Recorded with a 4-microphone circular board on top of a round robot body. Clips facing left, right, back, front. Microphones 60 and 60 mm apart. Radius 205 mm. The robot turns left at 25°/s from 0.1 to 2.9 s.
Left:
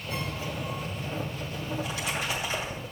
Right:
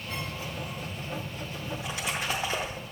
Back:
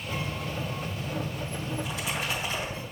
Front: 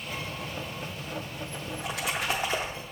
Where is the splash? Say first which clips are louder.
Left 1 dB, front 2 dB; 20° right, 0.6 m; by 2.9 s 50° right, 0.6 m.